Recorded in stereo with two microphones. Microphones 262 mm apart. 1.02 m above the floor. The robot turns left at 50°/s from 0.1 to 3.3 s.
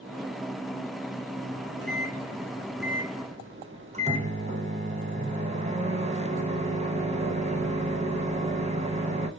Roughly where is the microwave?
Ahead left.